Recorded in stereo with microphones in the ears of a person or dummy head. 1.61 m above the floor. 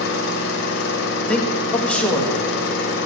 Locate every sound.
0.0 s an engine running: 60° left (ahead or behind), 1.1 m
1.3 s a man speaking: 10° left (ahead or behind), 1.1 m